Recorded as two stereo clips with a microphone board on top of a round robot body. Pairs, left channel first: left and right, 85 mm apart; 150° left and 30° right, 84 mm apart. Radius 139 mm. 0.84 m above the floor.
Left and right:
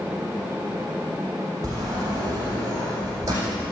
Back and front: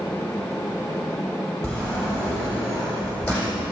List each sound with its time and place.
1.6 s a sliding door: 145° right, 7.5 m